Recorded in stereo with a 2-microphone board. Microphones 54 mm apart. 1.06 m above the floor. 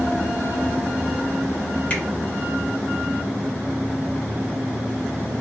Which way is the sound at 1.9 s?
25° left (ahead or behind).